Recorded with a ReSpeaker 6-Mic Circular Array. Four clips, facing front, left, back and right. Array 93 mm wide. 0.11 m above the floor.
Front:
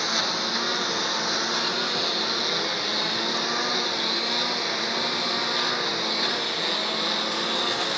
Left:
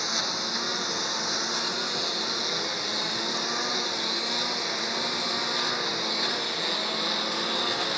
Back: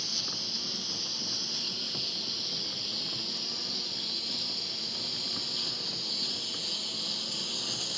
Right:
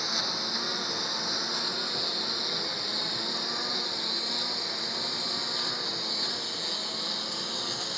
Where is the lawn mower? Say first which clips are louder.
Left 3 dB, front 16 dB; 10° left; by 8.0 s 30° left.